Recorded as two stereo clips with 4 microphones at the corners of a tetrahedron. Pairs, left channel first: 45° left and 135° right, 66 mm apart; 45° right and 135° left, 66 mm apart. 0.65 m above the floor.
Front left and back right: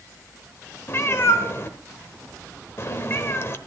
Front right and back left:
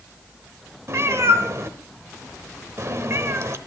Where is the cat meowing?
95° left, 0.9 m.